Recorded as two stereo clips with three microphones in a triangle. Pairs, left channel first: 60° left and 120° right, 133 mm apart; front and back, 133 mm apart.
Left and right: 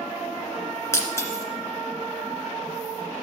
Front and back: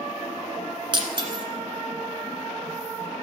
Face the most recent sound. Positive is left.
turn(degrees=130)